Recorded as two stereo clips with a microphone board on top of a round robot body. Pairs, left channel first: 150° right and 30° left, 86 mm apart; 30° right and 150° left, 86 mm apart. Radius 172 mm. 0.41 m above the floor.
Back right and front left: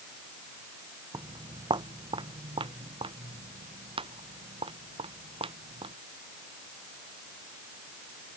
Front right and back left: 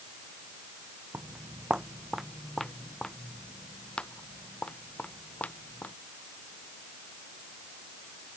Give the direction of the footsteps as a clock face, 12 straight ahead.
9 o'clock.